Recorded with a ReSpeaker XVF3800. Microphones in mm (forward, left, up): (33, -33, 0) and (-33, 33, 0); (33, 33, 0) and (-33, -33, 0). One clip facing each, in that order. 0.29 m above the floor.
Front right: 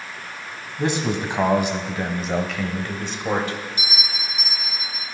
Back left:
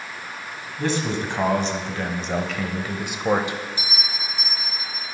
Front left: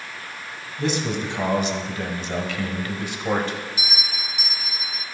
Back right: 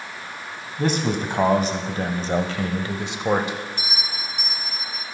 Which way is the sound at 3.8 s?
35° right.